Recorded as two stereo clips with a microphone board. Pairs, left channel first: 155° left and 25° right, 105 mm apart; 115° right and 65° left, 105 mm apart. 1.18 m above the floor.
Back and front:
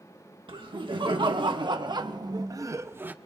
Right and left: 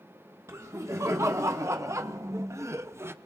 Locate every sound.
0.5 s laughter: 10° left, 1.7 m; by 3.1 s 35° left, 0.5 m